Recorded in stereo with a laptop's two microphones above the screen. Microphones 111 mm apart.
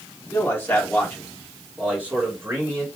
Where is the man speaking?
20° left (ahead or behind), 3 m; by 2.9 s 25° right (ahead or behind), 3 m.